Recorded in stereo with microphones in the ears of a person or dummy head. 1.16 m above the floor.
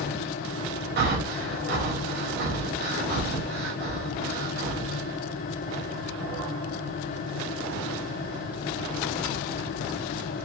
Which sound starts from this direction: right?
Breathing, at 1.0 s.